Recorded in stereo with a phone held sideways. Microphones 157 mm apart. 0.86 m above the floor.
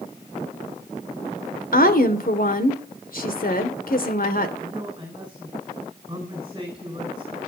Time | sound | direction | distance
1.7 | a woman speaking | 65° left (ahead or behind) | 2.5 m
4.6 | a man speaking | 30° right (ahead or behind) | 4 m